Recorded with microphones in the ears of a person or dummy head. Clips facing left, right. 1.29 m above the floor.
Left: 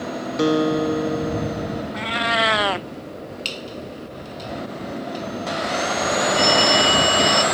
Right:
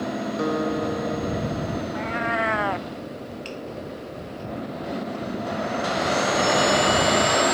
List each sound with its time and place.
0.4 s a guitar: 45° left (ahead or behind)
1.9 s a cat meowing: 40° left (ahead or behind)
3.5 s a squeak: 55° left (ahead or behind)
6.3 s a phone ringing: 60° left (ahead or behind)